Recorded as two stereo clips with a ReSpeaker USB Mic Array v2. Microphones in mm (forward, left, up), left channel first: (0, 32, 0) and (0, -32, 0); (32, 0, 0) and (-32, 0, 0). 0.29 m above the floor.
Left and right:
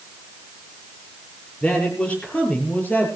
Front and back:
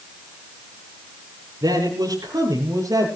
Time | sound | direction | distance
1.6 | a man speaking | 160° left | 5.5 m